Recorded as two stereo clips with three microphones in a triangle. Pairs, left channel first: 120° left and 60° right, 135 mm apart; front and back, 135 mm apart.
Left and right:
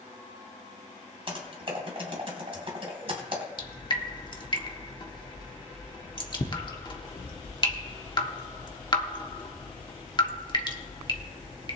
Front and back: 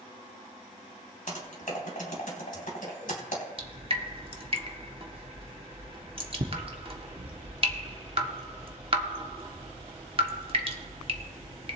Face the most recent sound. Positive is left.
turn(degrees=160)